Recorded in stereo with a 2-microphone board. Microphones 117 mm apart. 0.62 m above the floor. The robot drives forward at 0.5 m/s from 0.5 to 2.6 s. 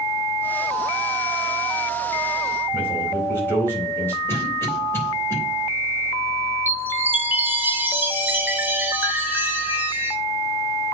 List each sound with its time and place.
2.7 s a man speaking: 15° left (ahead or behind), 4 m
4.3 s a cough: 20° left (ahead or behind), 3 m
6.7 s a chime: 15° right (ahead or behind), 1.0 m